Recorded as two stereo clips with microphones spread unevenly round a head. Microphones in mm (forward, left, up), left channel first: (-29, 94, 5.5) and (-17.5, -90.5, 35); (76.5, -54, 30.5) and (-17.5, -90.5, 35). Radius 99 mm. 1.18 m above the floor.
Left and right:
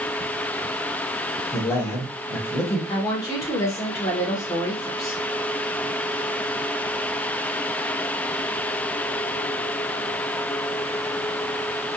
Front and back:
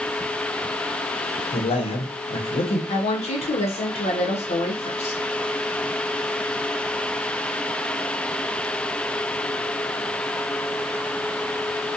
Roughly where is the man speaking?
Ahead.